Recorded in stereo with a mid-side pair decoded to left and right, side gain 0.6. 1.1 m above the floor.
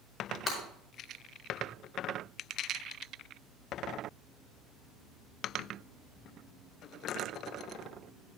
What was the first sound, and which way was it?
Breaking glass, 35° left.